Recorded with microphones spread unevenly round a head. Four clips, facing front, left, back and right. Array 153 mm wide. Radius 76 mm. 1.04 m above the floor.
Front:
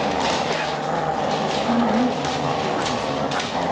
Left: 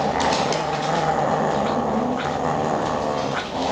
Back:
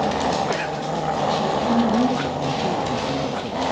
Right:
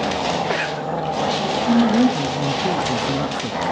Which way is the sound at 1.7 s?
95° right.